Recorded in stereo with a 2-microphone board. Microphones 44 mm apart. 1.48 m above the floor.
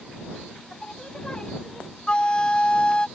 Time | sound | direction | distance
0.7 | singing | 20° left (ahead or behind) | ?
2.1 | a flute | 25° left (ahead or behind) | ?